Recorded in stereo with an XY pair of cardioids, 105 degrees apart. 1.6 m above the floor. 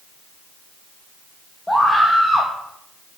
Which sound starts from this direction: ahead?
A scream, at 1.7 s.